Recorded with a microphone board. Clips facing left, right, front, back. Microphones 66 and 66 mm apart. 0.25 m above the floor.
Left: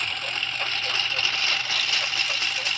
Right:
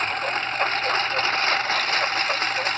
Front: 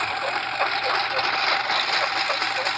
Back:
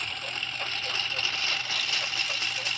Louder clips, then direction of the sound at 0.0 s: Right 6 dB, front 11 dB; 35° right.